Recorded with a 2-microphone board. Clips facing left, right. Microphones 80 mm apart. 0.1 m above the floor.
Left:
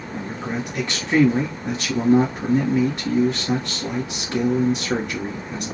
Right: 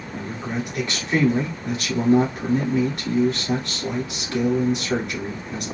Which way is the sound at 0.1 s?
30° left (ahead or behind).